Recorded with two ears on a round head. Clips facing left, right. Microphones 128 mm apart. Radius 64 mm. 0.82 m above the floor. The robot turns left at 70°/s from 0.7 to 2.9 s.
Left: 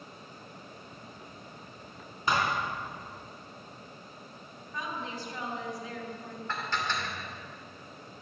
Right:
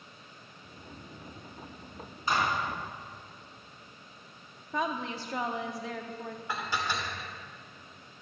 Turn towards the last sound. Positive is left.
turn(degrees=-10)  # may be behind; listen again after turning